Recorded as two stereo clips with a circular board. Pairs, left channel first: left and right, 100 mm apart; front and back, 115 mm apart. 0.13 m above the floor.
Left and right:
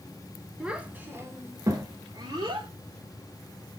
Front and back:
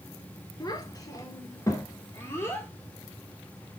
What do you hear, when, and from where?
0.6 s a child speaking: 15° right, 1.0 m; by 2.7 s 65° right, 1.6 m